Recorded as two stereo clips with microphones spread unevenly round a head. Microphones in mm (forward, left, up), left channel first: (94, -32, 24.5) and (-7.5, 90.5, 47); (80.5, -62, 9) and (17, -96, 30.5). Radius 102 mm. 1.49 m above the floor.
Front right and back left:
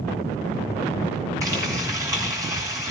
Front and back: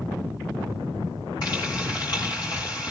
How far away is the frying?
About 6.5 m.